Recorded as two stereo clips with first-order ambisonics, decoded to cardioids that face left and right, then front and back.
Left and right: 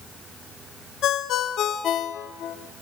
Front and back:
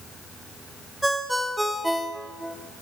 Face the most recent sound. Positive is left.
turn(degrees=95)